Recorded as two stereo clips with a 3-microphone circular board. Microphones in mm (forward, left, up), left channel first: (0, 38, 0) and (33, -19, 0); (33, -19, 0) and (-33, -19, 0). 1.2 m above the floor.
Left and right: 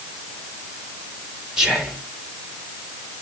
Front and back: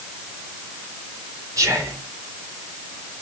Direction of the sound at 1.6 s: 140° right.